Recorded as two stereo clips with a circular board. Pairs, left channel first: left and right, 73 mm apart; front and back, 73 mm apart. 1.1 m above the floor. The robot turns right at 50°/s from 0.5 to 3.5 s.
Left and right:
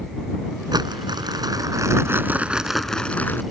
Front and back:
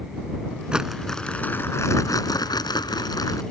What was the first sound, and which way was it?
Crumpling, 105° right.